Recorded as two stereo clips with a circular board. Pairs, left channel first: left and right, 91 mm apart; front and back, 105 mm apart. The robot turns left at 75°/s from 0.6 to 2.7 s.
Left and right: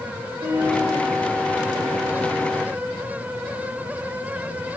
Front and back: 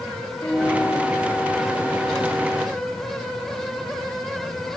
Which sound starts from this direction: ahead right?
A piano, at 0.4 s.